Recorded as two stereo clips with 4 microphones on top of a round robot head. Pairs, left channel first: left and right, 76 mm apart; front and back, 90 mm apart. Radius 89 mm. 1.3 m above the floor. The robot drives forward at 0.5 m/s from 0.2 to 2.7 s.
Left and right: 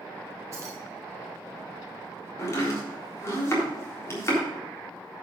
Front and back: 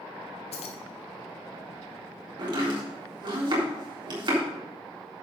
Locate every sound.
0.5 s keys jangling: 25° right, 0.9 m; by 0.8 s 30° right, 0.8 m
2.4 s chopping: 140° left, 3.5 m; by 4.4 s 145° left, 3.5 m